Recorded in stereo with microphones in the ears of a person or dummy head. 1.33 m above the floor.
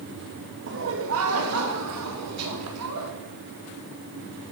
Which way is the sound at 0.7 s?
55° right (ahead or behind).